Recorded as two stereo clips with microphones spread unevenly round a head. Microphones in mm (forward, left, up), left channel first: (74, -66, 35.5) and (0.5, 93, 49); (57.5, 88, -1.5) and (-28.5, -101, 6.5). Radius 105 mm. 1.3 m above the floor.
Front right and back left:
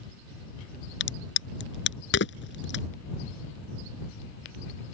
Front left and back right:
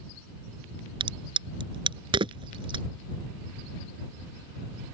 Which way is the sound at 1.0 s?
45° right.